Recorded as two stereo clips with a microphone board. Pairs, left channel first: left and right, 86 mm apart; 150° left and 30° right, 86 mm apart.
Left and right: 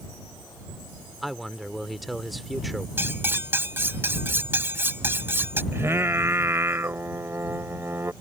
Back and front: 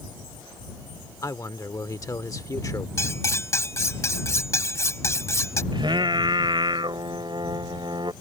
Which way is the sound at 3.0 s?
155° right.